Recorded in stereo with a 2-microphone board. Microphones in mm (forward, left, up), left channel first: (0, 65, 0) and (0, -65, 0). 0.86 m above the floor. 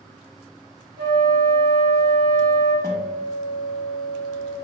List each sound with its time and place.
1.0 s a flute: 45° left (ahead or behind), 0.9 m
2.8 s a guitar: 25° left (ahead or behind), 0.6 m